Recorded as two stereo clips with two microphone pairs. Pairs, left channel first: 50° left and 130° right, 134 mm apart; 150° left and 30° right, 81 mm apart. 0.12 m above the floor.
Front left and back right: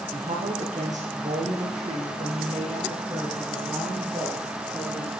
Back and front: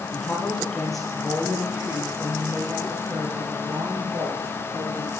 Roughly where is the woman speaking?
Behind right.